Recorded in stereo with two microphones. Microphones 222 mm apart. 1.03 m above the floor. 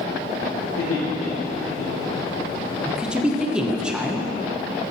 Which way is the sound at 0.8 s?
80° left.